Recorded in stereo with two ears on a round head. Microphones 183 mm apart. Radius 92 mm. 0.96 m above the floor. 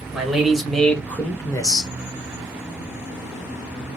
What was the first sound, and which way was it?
A man speaking, 5° right (ahead or behind).